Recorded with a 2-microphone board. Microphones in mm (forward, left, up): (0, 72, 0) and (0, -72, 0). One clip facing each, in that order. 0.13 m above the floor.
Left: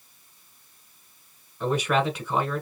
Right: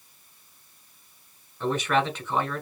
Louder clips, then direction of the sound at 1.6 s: Left 1 dB; 10° left (ahead or behind).